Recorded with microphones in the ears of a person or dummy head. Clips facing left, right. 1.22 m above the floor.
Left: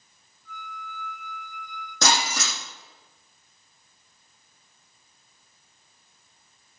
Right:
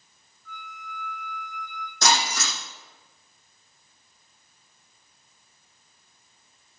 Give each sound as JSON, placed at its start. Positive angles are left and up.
{"t": 0.5, "sound": "a flute", "side_deg": 20, "distance_m": 3.0}
{"t": 2.0, "sound": "breaking glass", "side_deg": 70, "distance_m": 7.5}